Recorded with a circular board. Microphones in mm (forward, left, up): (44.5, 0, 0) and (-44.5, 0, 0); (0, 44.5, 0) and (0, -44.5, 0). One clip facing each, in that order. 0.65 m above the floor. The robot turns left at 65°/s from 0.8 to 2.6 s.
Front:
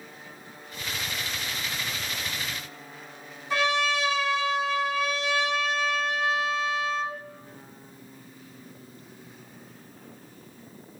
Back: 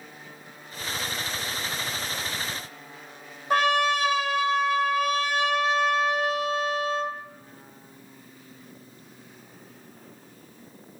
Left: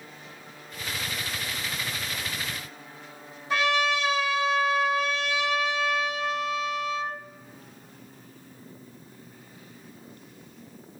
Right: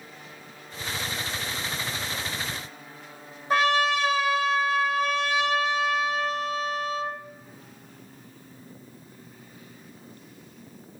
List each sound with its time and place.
3.5 s a trumpet: 140° right, 0.7 m